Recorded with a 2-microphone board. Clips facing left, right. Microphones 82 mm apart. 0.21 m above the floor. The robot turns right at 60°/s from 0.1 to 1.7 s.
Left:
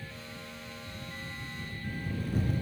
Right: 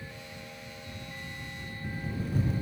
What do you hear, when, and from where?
Only background noise.